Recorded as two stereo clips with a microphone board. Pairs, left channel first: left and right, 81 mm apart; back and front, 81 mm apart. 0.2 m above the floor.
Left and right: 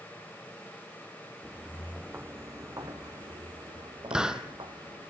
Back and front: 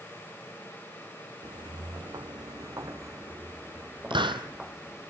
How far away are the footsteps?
About 1.1 m.